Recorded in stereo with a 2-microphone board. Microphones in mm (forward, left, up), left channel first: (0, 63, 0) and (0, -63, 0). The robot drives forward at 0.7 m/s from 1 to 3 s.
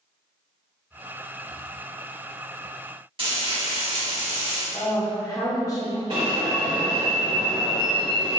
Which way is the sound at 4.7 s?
30° left (ahead or behind).